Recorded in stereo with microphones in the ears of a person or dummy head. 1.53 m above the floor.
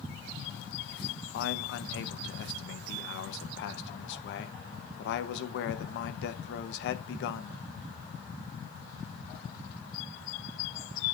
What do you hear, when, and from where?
1.3 s a man speaking: 80° left, 1.1 m